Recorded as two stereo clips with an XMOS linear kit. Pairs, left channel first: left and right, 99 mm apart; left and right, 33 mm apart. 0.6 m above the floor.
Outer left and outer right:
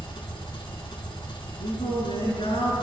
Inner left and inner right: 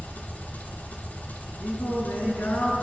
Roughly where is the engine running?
Left.